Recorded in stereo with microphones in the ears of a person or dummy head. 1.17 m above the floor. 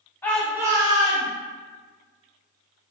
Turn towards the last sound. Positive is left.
turn(degrees=-40)  # may be behind; listen again after turning